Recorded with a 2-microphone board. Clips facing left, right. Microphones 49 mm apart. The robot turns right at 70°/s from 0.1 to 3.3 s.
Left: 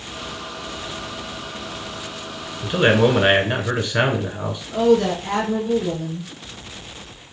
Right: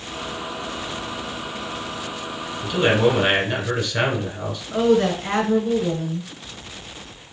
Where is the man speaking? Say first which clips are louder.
Left 2 dB; 85° left, 1.2 m; by 4.6 s 130° left, 1.2 m.